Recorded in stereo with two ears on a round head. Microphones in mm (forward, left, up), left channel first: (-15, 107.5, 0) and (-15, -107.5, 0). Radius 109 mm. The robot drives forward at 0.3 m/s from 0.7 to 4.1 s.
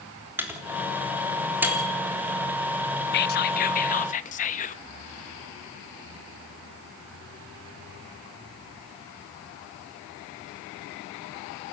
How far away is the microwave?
About 3 m.